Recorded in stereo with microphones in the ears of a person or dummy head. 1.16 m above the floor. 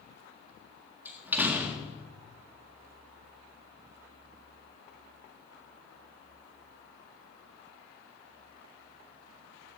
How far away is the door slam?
About 1.7 m.